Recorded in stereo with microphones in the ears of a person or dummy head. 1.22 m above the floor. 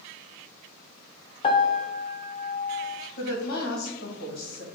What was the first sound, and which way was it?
A piano, 35° left (ahead or behind).